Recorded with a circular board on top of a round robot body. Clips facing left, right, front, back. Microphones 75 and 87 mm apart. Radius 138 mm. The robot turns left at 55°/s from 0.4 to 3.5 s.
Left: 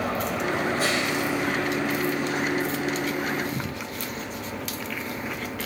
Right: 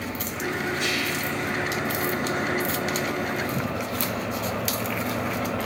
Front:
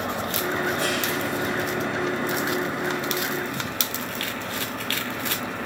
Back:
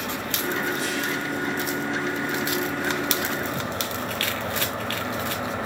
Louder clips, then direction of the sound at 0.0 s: Left 4 dB, front 2 dB; 60° left.